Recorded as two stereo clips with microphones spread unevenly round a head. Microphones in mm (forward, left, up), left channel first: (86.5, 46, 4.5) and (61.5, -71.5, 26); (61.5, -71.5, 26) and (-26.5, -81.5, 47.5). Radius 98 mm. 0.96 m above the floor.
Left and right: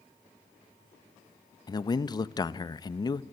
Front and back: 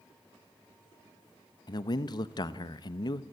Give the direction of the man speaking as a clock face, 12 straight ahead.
11 o'clock.